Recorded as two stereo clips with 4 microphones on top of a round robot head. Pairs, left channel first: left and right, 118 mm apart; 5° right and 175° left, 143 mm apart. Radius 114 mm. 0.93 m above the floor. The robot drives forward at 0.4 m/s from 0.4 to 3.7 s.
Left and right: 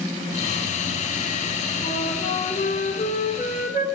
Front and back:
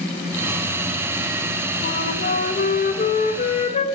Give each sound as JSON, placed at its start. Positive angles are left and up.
{"t": 1.8, "sound": "a flute", "azimuth_deg": 20, "distance_m": 1.5}